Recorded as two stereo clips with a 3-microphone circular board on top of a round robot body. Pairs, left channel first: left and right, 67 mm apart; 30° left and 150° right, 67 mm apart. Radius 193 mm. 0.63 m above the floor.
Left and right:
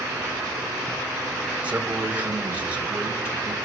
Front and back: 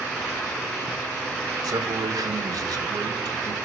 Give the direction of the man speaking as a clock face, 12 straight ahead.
5 o'clock.